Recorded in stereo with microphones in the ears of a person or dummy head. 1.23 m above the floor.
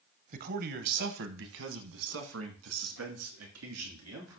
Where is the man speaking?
45° right (ahead or behind), 0.9 m; by 4.4 s 80° right, 3.5 m.